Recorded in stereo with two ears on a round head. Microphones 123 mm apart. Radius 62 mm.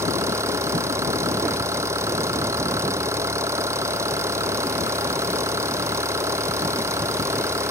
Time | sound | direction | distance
0.0 | an engine running | 20° right (ahead or behind) | ?